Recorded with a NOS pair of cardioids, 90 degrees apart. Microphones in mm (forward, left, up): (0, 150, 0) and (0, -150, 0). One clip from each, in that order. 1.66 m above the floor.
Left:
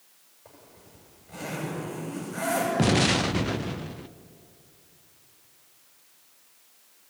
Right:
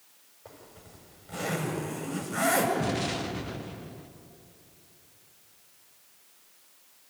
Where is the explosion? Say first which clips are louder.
Left 7 dB; 50° left, 0.7 m.